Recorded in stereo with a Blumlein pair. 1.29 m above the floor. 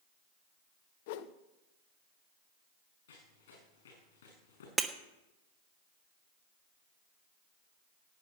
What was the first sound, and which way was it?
A whoosh, 50° left.